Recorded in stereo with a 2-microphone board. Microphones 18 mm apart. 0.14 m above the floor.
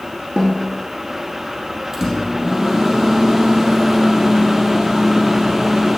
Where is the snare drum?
70° right (ahead or behind), 4 m.